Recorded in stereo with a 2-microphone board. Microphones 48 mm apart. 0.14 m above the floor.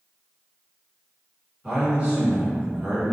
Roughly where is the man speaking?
Right.